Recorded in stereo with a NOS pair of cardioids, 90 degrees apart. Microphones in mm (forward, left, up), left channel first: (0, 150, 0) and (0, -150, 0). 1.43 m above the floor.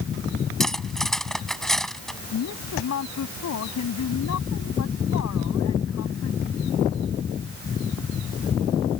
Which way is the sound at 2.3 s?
60° left.